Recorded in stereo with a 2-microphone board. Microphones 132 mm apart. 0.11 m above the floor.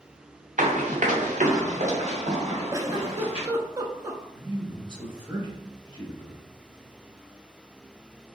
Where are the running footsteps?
85° right, 1.1 m; by 3.5 s 50° right (ahead or behind), 2.5 m.